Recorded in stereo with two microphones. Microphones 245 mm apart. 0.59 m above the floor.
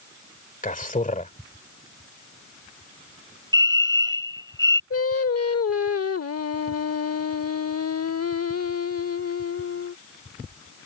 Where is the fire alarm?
15° right (ahead or behind).